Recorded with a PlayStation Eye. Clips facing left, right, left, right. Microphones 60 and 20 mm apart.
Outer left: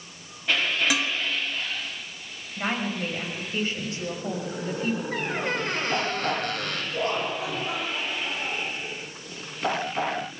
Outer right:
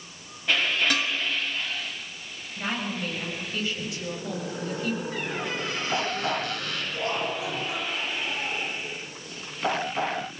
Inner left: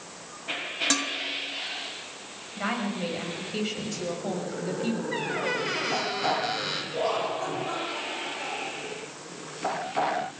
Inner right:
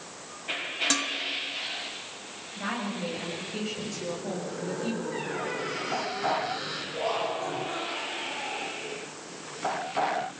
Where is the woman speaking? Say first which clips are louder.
Outer left 2 dB, inner left 3 dB; 35° left (ahead or behind), 7 m.